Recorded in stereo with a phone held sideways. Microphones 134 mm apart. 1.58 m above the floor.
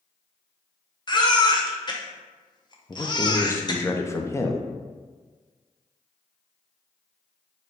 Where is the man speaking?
20° left (ahead or behind), 0.5 m.